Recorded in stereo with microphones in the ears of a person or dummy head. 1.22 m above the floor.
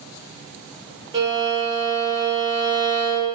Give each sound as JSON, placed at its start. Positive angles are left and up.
{"t": 1.1, "sound": "a violin", "side_deg": -25, "distance_m": 4.0}